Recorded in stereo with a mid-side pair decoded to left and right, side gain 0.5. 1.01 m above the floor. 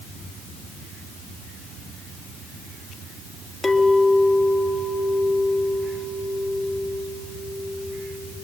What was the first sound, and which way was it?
A clink, 20° left.